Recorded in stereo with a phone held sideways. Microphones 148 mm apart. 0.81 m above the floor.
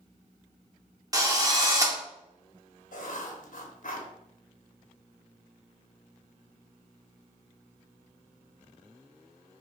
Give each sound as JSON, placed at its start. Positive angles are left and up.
{"t": 1.1, "sound": "a drill", "side_deg": -25, "distance_m": 0.6}
{"t": 2.9, "sound": "writing", "side_deg": 65, "distance_m": 0.7}